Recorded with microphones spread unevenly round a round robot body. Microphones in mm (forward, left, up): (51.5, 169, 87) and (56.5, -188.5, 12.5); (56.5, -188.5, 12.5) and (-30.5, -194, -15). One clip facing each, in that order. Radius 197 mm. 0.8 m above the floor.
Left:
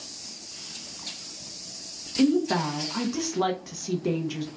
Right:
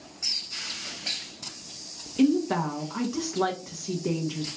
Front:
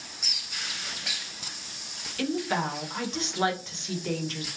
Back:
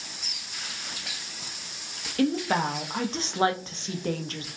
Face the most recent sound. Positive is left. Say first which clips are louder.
# even, back 4 dB
turn(degrees=-175)